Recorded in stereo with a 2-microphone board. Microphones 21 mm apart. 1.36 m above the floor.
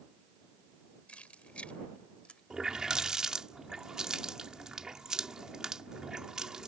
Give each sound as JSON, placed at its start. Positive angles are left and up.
{"t": 1.1, "sound": "keys jangling", "side_deg": 80}
{"t": 2.5, "sound": "a running tap", "side_deg": -30}